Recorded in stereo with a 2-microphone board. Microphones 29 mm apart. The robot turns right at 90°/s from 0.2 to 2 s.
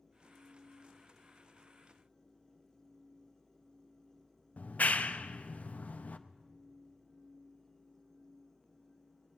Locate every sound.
4.6 s a clap: 70° left (ahead or behind), 0.5 m